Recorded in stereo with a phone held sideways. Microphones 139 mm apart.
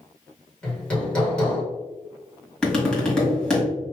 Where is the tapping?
5° left (ahead or behind), 2 m.